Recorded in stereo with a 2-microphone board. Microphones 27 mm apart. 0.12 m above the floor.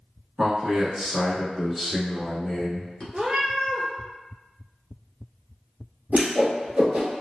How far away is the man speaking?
About 1.3 m.